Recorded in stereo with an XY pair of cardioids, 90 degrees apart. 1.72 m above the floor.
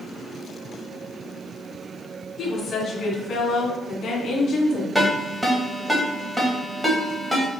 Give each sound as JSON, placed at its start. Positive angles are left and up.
{"t": 2.4, "sound": "a woman speaking", "azimuth_deg": 65, "distance_m": 2.0}
{"t": 5.0, "sound": "a ringtone", "azimuth_deg": -10, "distance_m": 1.9}